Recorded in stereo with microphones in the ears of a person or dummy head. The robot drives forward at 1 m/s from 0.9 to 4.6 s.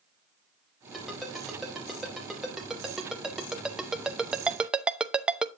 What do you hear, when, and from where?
0.9 s a ringtone: centre (ahead or behind), 4 m; by 5.5 s 5° right (ahead or behind), 0.6 m